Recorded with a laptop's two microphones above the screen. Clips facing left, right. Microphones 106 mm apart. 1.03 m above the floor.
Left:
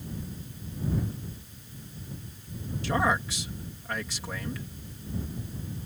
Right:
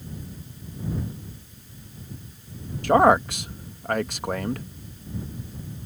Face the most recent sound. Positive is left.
turn(degrees=-55)  # may be behind; listen again after turning